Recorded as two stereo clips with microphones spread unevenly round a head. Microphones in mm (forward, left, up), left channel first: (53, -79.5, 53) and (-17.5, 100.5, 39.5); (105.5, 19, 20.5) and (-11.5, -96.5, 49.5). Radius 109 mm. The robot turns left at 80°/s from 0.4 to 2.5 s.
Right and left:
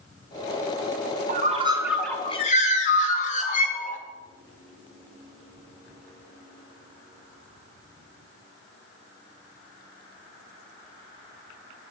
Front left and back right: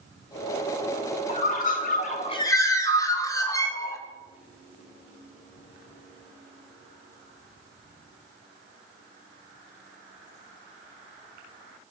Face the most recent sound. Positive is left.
turn(degrees=-20)